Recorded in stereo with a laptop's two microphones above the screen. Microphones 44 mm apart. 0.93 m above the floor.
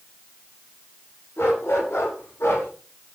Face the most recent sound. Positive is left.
turn(degrees=75)  # may be behind; listen again after turning